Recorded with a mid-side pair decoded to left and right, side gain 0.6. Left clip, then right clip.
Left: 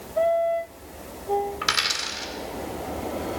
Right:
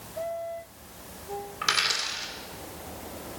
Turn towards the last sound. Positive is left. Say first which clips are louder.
# right 4 dB
turn(degrees=15)